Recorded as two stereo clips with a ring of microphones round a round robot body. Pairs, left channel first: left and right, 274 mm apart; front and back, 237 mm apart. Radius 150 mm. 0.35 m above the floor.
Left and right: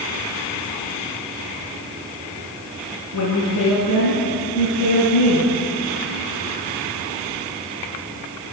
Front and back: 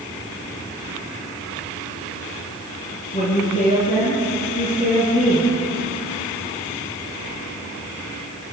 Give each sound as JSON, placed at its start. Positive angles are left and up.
{"t": 3.1, "sound": "a woman speaking", "azimuth_deg": 60, "distance_m": 5.0}